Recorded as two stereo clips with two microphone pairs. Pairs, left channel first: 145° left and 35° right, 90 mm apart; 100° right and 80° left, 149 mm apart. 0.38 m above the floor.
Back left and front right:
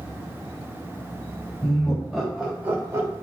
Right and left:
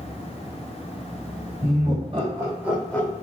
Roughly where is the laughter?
Left.